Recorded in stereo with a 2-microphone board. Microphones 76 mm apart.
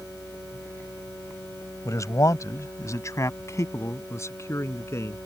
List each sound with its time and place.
1.9 s a man speaking: 50° left (ahead or behind); by 5.2 s 40° left (ahead or behind)